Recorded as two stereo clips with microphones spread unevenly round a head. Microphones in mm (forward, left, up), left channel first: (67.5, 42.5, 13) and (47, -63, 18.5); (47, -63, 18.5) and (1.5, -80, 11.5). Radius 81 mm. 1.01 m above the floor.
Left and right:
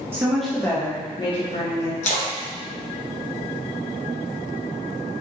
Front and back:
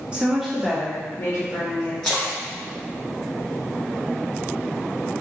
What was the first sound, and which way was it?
A woman speaking, 160° right.